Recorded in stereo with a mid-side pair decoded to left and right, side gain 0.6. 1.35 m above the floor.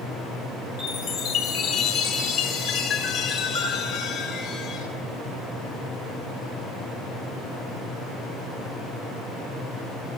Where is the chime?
70° left, 8.5 m.